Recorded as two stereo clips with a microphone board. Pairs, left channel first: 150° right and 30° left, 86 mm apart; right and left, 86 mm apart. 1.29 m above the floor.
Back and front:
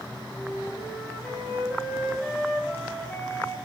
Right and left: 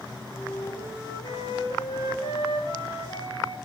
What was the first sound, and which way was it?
A flute, 65° right.